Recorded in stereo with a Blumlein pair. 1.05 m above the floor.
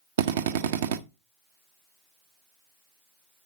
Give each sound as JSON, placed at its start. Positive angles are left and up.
{"t": 0.2, "sound": "a drill", "azimuth_deg": -55, "distance_m": 0.6}